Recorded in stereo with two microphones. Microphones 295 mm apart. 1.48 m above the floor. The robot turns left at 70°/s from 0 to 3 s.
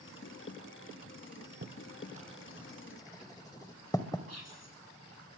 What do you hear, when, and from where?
1.6 s writing: 40° right (ahead or behind), 1.5 m; by 4.2 s 15° left (ahead or behind), 1.5 m
4.3 s whispering: 55° left (ahead or behind), 4 m